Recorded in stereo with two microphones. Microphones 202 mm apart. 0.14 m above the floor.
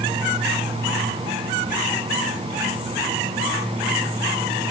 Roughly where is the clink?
I don't hear a clink.